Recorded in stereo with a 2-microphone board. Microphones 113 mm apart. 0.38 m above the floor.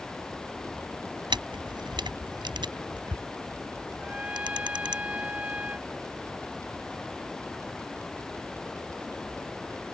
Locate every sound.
0.0 s running water: 5° left (ahead or behind)
1.3 s a camera shutter: 45° right (ahead or behind)
4.0 s a trumpet: 10° right (ahead or behind)